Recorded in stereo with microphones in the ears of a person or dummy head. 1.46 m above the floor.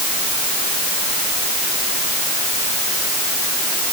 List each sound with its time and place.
Only background noise.